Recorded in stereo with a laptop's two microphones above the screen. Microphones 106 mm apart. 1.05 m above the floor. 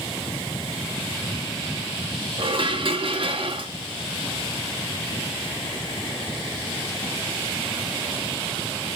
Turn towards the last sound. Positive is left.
turn(degrees=-55)  # may be behind; listen again after turning